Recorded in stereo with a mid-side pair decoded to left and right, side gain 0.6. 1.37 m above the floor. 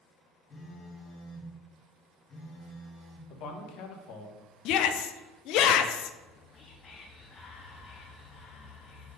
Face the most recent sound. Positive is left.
turn(degrees=40)